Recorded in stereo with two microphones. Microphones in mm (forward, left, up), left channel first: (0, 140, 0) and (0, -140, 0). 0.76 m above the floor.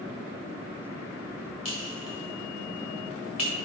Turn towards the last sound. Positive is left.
turn(degrees=65)  # may be behind; listen again after turning